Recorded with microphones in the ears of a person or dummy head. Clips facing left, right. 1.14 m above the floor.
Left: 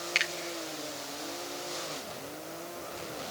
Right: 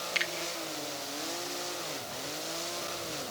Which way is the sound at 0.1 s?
30° left (ahead or behind).